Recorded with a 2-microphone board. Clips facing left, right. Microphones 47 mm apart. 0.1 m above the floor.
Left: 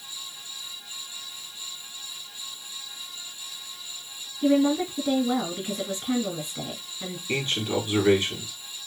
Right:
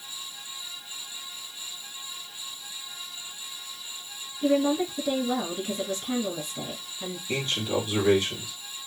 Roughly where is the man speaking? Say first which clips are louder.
Left 1 dB; left.